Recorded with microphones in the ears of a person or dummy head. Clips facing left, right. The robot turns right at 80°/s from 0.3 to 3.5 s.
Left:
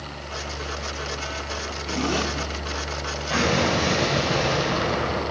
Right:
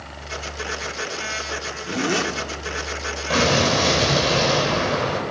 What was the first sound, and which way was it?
A zipper, 170° right.